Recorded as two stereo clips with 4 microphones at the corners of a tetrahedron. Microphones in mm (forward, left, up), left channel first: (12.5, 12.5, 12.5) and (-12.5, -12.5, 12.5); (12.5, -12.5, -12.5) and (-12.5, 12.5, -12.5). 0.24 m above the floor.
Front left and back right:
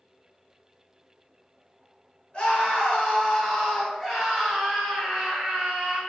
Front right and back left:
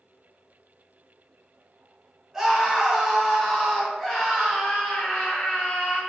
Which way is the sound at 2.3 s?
70° left.